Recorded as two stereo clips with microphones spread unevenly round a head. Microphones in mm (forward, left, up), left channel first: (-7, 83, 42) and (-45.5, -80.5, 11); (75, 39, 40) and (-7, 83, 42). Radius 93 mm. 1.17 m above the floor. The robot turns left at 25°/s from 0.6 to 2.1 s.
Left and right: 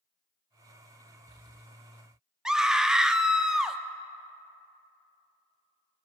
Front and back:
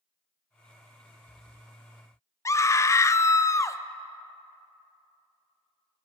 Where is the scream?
40° right, 0.6 m.